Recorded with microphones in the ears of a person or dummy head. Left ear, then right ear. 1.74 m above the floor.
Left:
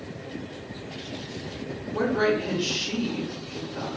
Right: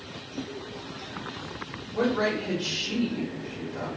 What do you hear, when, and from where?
1.9 s a woman speaking: 15° left (ahead or behind), 1.6 m